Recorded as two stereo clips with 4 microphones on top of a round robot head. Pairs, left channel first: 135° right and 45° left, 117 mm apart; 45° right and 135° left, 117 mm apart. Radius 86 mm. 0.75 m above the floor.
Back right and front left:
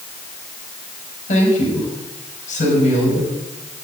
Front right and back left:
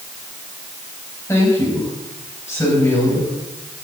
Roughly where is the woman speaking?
Behind right.